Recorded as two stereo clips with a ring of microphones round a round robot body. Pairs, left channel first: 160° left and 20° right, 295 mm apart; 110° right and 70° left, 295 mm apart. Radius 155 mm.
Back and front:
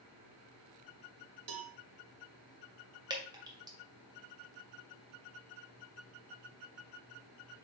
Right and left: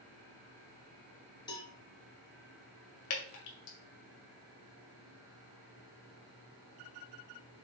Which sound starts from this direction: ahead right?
A cowbell, at 1.5 s.